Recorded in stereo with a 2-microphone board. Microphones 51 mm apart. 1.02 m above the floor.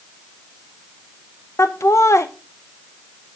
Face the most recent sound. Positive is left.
turn(degrees=65)  # may be behind; listen again after turning